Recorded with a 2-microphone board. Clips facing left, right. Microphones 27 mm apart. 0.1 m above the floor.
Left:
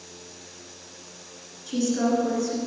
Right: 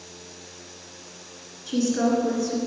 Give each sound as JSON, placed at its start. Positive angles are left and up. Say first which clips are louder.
{"t": 1.7, "sound": "a woman speaking", "louder": "right 1 dB", "side_deg": -15, "distance_m": 1.6}